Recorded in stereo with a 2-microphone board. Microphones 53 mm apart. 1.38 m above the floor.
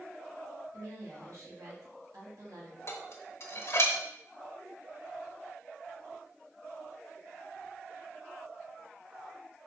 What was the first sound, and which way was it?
A woman speaking, 85° right.